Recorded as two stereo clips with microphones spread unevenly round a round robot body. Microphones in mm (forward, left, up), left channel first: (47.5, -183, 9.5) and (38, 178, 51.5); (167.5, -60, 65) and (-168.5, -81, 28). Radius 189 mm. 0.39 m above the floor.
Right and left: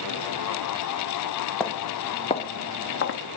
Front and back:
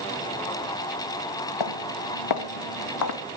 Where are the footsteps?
Straight ahead, 2.5 m; by 3.2 s 30° right, 1.9 m.